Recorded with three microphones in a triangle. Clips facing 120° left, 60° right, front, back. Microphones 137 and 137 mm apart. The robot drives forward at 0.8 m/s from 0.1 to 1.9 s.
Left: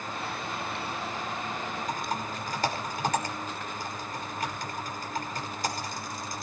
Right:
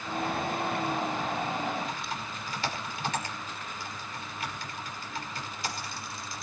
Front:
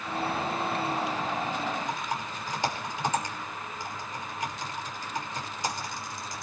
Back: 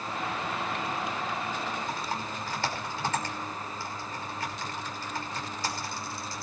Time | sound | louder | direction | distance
1.9 | typing on a keyboard | left 4 dB, front 1 dB | 75° left | 5.5 m